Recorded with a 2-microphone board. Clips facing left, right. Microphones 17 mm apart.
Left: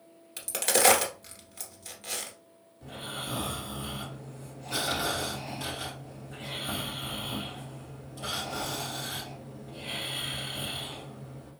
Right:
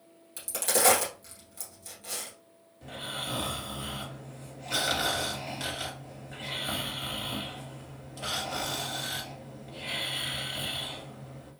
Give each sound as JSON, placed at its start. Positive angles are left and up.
{"t": 0.4, "sound": "a crack", "side_deg": 30, "distance_m": 1.8}
{"t": 2.8, "sound": "snoring", "side_deg": -30, "distance_m": 1.9}